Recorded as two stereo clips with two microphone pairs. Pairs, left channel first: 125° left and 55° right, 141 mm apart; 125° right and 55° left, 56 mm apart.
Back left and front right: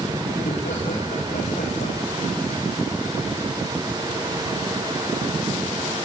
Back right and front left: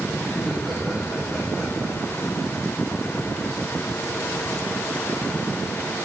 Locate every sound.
0.3 s laughter: 145° left, 6 m